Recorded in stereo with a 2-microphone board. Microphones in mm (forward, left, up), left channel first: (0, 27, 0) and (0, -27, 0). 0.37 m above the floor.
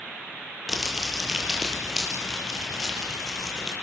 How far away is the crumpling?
About 6 m.